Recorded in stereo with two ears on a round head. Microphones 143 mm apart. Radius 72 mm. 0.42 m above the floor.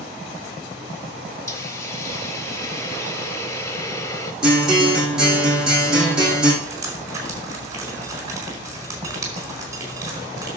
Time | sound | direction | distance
1.5 | a hiss | 20° left (ahead or behind) | 1.3 m
4.4 | a guitar | 5° right (ahead or behind) | 5.5 m
6.6 | dripping | 20° right (ahead or behind) | 4.5 m